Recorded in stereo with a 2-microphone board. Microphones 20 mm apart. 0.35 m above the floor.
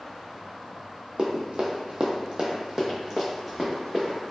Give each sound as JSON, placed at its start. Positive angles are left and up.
{"t": 1.2, "sound": "running footsteps", "side_deg": -55, "distance_m": 0.7}